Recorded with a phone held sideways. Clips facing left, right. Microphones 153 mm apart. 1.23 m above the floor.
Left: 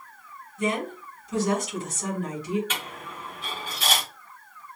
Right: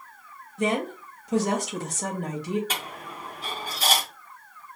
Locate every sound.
0.6 s a woman speaking: 70° right (ahead or behind), 2.5 m
2.7 s a dropped coin: 40° right (ahead or behind), 1.4 m